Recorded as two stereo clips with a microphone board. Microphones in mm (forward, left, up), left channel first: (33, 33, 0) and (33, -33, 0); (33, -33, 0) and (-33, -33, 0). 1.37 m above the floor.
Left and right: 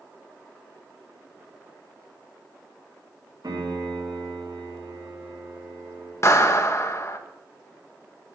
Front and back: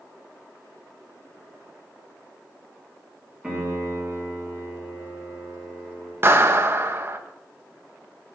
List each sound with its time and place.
3.4 s a piano: 105° right, 4.5 m
6.2 s a clap: 130° left, 0.9 m